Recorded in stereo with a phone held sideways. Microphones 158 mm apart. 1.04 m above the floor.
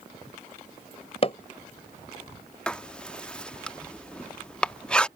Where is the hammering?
40° left (ahead or behind).